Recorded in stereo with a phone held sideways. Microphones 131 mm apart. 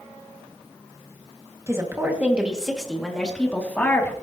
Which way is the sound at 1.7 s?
25° right (ahead or behind).